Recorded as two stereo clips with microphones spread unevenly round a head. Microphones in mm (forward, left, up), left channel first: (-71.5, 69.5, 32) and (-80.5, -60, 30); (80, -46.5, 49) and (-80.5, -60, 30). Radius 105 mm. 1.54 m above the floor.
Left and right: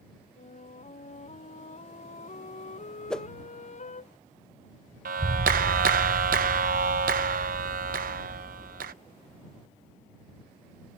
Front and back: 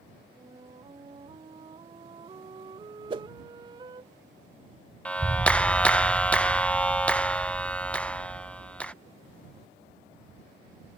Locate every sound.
0.4 s a flute: 115° left
3.1 s a whoosh: 155° left
5.0 s a clap: 75° right